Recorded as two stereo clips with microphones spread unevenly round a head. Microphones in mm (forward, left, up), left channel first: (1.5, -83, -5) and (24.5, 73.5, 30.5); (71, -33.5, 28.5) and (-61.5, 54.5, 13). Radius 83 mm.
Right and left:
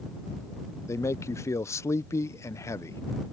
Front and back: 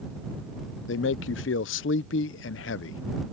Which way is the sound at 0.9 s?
25° right.